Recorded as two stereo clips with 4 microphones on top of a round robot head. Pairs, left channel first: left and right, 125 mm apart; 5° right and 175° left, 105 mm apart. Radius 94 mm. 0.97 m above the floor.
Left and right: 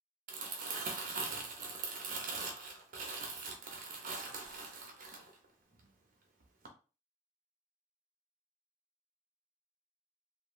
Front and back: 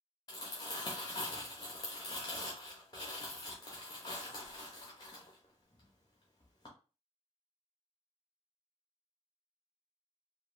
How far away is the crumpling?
About 0.6 m.